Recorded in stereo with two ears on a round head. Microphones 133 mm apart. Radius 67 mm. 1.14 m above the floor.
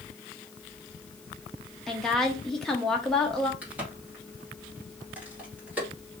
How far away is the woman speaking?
About 0.8 m.